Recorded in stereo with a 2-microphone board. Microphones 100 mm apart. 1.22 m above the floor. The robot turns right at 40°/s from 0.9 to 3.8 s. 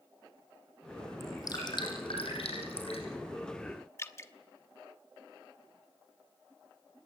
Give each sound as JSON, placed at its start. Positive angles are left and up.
{"t": 1.2, "sound": "dripping", "side_deg": 30, "distance_m": 7.0}
{"t": 4.0, "sound": "dripping", "side_deg": 30, "distance_m": 1.1}